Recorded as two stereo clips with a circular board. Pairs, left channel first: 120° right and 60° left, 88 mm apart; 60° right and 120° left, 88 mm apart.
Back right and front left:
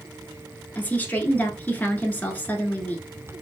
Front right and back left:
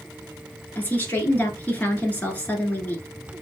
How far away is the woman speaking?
About 1.1 m.